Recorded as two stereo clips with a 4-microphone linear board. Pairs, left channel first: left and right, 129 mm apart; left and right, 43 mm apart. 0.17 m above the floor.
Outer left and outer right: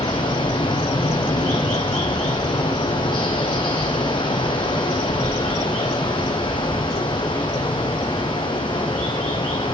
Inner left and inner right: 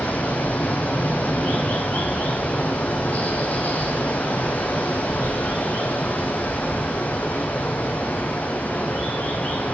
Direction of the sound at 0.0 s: 40° left (ahead or behind).